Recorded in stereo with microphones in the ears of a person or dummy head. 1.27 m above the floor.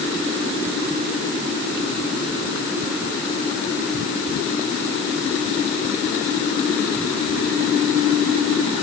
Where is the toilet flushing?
I don't hear a toilet flushing.